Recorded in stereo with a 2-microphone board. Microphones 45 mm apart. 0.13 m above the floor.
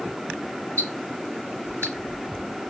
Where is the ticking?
65° left (ahead or behind), 4 m.